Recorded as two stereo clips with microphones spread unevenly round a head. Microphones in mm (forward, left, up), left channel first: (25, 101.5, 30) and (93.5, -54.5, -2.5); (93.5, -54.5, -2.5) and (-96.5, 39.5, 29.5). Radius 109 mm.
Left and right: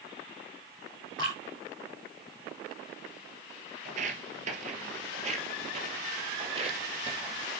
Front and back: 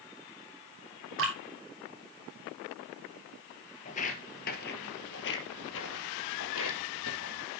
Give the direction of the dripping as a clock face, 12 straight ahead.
6 o'clock.